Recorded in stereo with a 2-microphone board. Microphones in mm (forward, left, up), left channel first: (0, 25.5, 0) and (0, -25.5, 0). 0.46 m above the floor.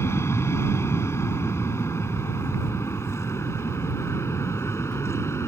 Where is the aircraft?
60° left (ahead or behind); by 5.5 s 65° left (ahead or behind).